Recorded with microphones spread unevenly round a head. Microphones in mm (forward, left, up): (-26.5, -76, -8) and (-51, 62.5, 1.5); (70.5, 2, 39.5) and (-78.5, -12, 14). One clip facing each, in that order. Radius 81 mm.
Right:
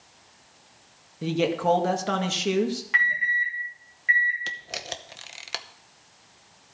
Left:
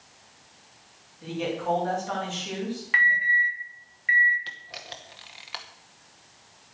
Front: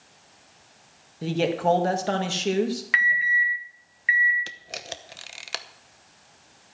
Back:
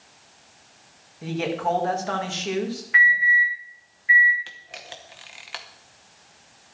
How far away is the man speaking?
About 2.0 m.